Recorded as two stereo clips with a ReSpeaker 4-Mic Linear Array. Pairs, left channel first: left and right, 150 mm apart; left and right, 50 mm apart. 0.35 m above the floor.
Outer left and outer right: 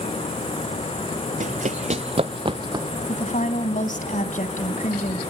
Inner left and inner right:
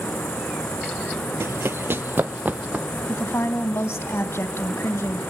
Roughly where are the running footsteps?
Right.